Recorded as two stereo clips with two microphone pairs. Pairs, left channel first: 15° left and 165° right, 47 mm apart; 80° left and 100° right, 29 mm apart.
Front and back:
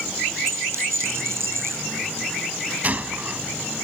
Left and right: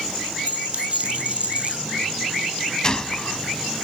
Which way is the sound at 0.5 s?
145° right.